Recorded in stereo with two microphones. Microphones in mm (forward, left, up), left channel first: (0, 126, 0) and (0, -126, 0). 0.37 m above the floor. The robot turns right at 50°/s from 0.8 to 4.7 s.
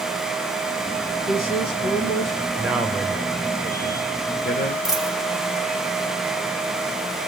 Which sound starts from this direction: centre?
A dropped coin, at 4.8 s.